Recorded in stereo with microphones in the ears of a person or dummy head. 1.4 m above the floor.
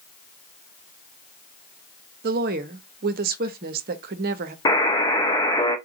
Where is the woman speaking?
45° right (ahead or behind), 0.5 m.